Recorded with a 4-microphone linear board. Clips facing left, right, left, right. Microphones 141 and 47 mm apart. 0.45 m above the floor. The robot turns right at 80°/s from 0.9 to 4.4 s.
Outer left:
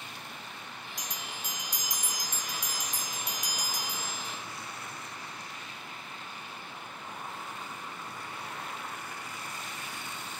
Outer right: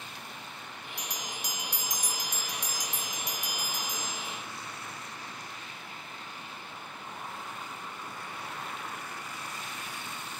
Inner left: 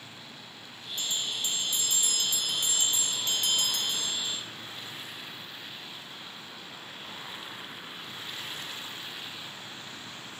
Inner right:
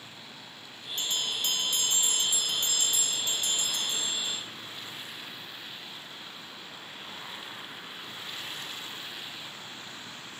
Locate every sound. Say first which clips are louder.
1.0 s a bell: outer right 3 dB, inner right 2 dB; 120° right, 0.7 m; by 4.4 s 155° left, 0.7 m